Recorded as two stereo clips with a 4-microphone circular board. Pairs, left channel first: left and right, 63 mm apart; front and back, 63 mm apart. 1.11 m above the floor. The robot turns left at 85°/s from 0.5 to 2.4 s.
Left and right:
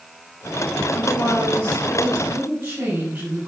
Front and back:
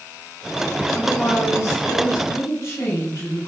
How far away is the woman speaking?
About 6.5 m.